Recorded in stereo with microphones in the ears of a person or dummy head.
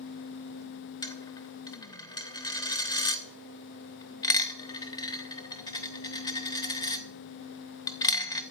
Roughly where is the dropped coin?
Left.